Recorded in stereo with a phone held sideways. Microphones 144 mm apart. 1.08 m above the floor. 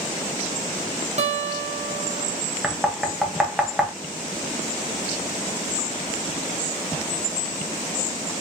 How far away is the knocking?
About 0.9 m.